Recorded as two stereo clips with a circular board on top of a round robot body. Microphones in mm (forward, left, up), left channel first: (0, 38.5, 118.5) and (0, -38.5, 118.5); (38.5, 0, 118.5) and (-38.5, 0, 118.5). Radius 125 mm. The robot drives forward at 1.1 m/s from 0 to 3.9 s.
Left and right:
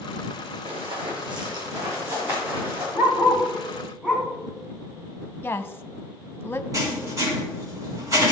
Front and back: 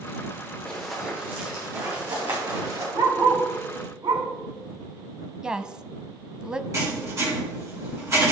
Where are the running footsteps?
80° right, 2.5 m; by 2.8 s 155° right, 6 m.